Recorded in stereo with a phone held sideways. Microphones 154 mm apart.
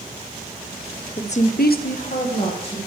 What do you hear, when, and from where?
1.2 s a woman speaking: 35° left (ahead or behind), 0.9 m; by 2.8 s 40° left (ahead or behind), 2 m